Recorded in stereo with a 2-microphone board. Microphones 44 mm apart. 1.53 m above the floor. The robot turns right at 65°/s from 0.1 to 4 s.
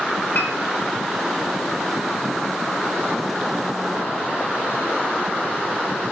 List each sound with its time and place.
0.3 s a piano: 55° left (ahead or behind), 0.8 m